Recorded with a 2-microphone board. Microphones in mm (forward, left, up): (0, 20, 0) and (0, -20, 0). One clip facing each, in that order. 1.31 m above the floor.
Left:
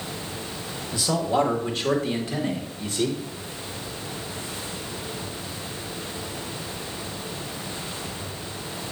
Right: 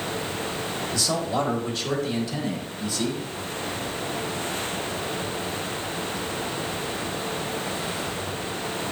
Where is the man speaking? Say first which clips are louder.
Left 4 dB; 20° left (ahead or behind), 1.9 m; by 3.2 s 45° left (ahead or behind), 3.5 m.